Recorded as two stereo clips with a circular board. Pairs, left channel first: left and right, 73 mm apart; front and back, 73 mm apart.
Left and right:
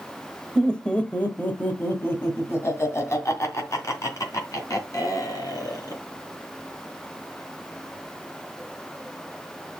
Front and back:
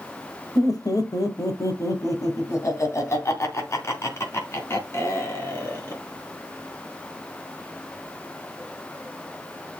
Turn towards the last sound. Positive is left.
turn(degrees=55)